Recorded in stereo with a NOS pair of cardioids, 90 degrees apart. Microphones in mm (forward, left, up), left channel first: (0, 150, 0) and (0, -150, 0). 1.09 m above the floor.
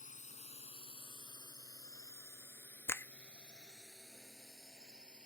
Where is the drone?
25° left; by 5.3 s 5° right.